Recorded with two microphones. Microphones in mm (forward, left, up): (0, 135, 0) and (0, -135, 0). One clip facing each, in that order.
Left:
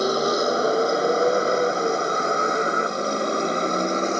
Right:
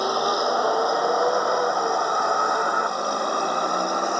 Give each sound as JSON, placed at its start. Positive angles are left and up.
{"t": 0.0, "sound": "a vehicle", "side_deg": 25}